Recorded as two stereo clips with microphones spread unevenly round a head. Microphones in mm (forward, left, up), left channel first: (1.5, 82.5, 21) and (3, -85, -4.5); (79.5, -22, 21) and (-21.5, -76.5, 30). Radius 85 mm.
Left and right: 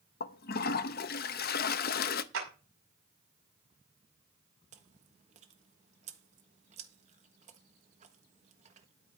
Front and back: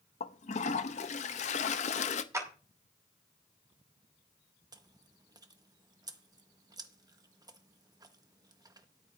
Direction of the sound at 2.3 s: 90° right.